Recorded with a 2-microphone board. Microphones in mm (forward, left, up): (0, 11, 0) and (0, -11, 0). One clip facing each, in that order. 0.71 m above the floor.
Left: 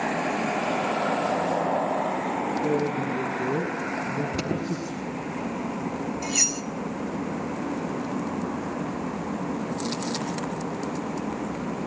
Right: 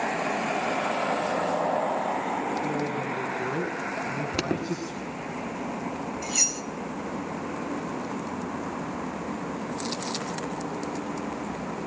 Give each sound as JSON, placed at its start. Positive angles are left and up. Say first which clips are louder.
{"t": 2.6, "sound": "a man speaking", "louder": "left 3 dB", "side_deg": -75, "distance_m": 5.5}
{"t": 4.3, "sound": "an alarm", "louder": "even", "side_deg": -30, "distance_m": 1.4}
{"t": 6.2, "sound": "cutlery clinking", "louder": "left 1 dB", "side_deg": 5, "distance_m": 0.8}